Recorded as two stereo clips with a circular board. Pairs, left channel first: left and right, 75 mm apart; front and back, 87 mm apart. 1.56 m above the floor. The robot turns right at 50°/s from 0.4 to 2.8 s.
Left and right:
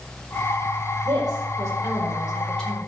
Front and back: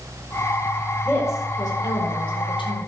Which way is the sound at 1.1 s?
70° right.